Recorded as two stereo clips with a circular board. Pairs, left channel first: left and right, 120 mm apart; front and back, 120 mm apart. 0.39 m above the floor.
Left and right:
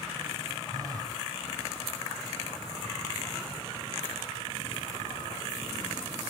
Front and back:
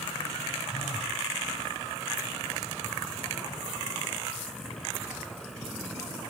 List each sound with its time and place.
0.7 s a phone buzzing: 35° right, 1.0 m